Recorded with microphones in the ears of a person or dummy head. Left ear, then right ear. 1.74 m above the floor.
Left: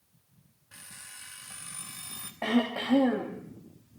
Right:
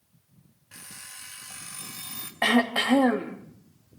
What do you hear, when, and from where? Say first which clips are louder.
0.7 s an alarm clock: right 3 dB; 15° right (ahead or behind), 1.6 m
2.4 s throat clearing: right 7 dB; 65° right (ahead or behind), 3 m